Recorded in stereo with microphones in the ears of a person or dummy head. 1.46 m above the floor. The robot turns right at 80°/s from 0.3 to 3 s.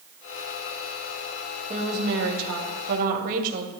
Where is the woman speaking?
150° right, 2.5 m; by 3.7 s 45° right, 2.5 m.